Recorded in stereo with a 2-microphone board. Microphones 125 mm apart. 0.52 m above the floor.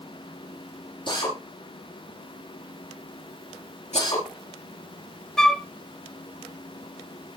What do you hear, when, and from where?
1.1 s a drill: 40° left (ahead or behind), 7.5 m
3.9 s cutlery clinking: 65° left (ahead or behind), 1.1 m
5.4 s a flute: 5° left (ahead or behind), 0.7 m